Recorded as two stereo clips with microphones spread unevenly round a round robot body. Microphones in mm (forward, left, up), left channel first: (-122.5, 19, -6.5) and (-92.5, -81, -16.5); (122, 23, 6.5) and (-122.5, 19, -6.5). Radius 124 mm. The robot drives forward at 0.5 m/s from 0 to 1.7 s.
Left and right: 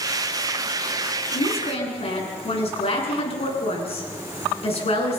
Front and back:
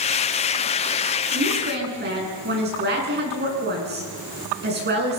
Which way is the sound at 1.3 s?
130° left.